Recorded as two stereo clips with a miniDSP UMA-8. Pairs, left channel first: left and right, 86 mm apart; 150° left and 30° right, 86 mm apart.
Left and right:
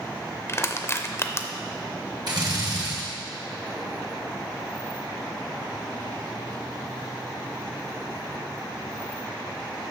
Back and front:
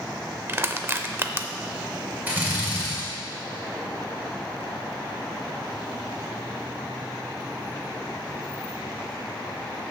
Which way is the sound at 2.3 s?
95° right.